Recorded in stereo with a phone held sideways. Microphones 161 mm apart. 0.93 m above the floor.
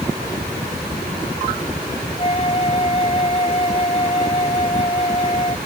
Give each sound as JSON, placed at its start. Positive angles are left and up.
{"t": 2.2, "sound": "a flute", "side_deg": 40}